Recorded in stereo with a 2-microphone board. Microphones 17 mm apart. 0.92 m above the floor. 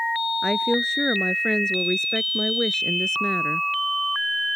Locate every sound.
0.4 s a woman speaking: 45° left (ahead or behind); by 3.7 s 40° left (ahead or behind)